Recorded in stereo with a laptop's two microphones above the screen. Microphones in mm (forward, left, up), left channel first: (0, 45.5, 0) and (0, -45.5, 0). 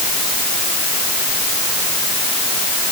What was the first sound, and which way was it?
Only background noise.